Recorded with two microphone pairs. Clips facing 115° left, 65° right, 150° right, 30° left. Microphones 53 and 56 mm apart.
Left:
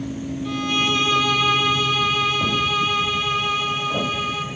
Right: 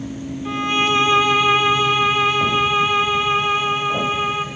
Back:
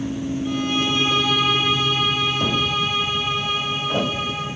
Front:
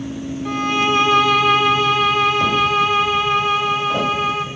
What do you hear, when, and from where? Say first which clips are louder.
0.5 s a violin: right 4 dB, front 6 dB; straight ahead, 1.1 m